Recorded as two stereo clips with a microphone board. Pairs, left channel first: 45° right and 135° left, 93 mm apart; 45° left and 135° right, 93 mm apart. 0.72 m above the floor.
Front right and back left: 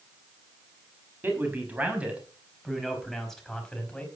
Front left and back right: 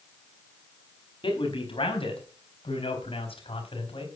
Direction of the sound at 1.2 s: 65° left.